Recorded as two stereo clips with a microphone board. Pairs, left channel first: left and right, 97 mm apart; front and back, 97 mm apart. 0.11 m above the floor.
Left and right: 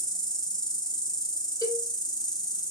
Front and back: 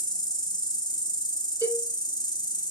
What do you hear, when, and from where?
0.0 s an insect: 45° left, 1.0 m
1.6 s a cowbell: 135° left, 3.5 m